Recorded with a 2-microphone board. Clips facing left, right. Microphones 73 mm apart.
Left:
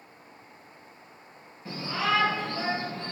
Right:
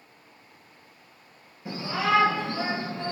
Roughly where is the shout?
Centre.